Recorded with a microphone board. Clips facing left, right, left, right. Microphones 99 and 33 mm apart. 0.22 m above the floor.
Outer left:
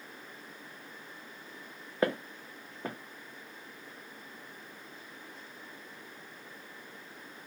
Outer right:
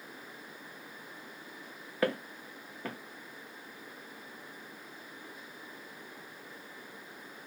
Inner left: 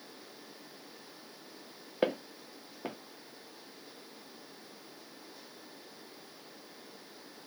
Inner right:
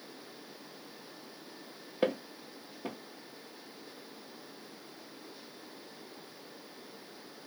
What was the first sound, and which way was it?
Footsteps, 20° left (ahead or behind).